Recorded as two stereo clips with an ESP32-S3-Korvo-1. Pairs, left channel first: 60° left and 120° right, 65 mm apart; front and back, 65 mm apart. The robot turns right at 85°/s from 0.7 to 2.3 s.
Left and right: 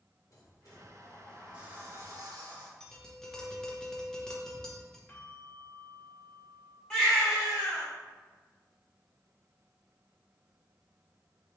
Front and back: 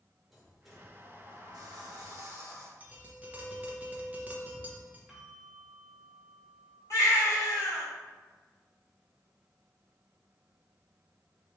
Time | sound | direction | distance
0.3 | a sliding door | 90° left | 1.1 m
2.8 | tapping | 130° left | 0.7 m
5.1 | a bell | 95° left | 1.2 m
6.9 | a baby crying | 20° right | 1.8 m